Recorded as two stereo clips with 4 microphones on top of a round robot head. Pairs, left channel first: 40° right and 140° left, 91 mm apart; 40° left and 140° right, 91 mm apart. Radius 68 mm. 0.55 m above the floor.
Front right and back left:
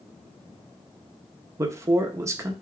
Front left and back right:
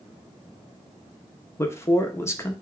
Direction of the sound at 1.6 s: 90° left.